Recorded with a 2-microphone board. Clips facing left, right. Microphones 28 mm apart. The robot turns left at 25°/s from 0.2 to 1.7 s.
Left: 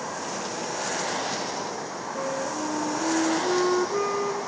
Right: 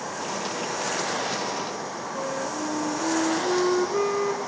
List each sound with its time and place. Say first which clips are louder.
2.1 s a flute: left 1 dB; 5° left (ahead or behind), 0.9 m